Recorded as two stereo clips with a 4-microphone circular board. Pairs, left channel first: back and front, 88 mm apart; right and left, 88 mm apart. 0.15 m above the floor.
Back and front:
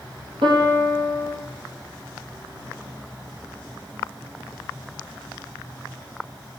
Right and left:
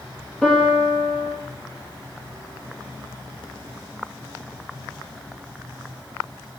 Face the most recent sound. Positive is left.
turn(degrees=-5)